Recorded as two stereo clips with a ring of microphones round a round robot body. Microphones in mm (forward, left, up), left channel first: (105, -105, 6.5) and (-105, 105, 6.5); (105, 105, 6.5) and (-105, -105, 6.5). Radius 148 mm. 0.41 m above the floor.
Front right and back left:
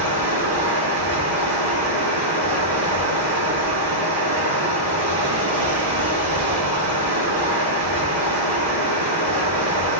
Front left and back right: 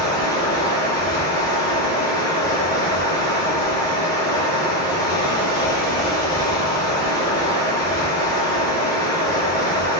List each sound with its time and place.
0.0 s running water: 120° left, 4.5 m